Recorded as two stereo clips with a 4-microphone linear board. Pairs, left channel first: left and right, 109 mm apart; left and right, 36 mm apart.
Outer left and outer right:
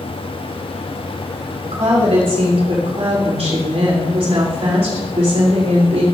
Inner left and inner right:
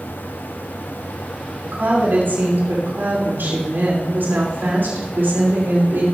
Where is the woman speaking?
75° right (ahead or behind), 3 m.